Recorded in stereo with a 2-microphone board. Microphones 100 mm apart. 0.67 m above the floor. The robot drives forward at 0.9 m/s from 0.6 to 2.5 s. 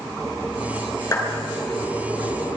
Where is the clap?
30° left (ahead or behind), 7 m.